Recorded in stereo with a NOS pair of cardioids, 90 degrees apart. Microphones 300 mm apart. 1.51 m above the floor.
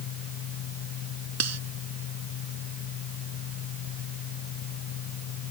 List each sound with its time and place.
0.0 s a fan: 65° left
1.4 s cutlery clinking: 55° right